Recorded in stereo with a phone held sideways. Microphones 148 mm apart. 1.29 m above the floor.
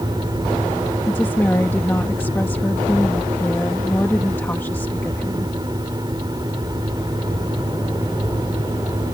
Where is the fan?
30° right (ahead or behind).